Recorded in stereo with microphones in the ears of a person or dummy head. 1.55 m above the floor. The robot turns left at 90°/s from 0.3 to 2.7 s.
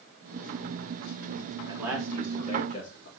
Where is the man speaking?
150° right, 3.5 m; by 3.1 s 120° left, 3.5 m.